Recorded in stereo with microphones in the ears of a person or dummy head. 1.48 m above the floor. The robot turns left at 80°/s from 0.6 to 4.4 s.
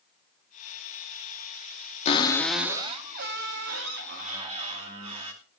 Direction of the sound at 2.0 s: 40° left.